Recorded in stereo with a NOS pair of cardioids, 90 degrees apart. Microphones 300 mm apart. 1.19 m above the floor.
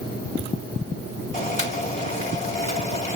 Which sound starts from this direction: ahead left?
Boiling, at 1.3 s.